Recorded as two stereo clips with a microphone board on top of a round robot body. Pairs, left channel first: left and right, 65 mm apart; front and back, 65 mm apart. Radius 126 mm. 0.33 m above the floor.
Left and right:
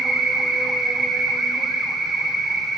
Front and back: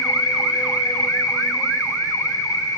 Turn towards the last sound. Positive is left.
turn(degrees=-5)